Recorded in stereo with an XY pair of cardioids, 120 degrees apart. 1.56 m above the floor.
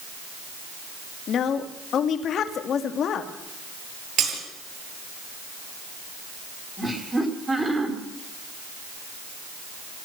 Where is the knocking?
No knocking in this recording.